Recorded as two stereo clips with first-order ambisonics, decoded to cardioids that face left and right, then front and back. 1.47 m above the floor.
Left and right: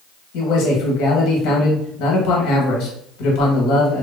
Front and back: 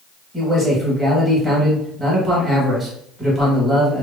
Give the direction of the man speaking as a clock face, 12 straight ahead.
9 o'clock.